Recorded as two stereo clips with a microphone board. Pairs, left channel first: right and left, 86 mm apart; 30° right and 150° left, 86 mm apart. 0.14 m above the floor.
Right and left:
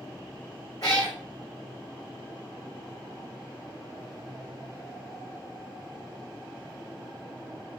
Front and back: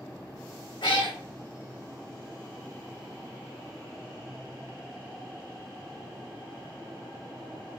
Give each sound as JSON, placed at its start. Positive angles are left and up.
{"t": 0.8, "sound": "a cat meowing", "azimuth_deg": -45, "distance_m": 0.9}